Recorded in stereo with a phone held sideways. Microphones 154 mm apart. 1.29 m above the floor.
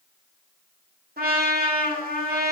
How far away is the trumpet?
About 1.0 m.